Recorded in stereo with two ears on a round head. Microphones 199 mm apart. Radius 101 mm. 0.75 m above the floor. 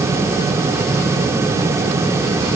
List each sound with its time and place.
Only background noise.